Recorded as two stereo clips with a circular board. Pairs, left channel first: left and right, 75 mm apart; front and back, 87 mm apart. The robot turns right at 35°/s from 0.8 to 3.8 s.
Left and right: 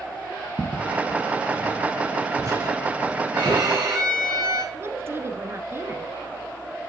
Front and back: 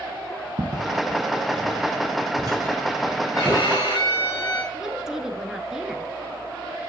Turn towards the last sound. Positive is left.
turn(degrees=-100)